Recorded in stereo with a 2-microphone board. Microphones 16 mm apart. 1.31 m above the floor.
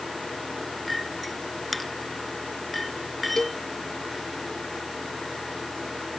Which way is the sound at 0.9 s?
5° left (ahead or behind).